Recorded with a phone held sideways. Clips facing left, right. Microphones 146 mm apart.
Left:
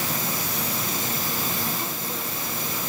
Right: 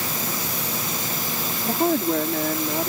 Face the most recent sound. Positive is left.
turn(degrees=-80)